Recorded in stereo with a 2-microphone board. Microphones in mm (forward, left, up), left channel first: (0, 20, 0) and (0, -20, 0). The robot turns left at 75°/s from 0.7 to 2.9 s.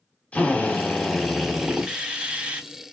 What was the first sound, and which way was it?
A drill, 55° left.